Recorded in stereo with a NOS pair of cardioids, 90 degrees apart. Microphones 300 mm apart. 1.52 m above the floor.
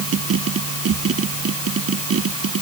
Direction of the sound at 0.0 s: 50° right.